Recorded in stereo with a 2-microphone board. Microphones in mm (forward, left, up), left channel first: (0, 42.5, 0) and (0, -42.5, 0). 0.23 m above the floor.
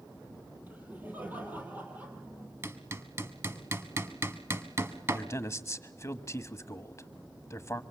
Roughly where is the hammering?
Right.